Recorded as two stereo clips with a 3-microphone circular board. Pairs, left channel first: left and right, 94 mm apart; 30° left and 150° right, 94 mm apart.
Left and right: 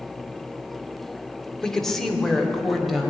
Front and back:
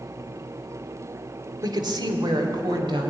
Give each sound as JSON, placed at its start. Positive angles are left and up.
{"t": 1.6, "sound": "a woman speaking", "azimuth_deg": 175, "distance_m": 1.4}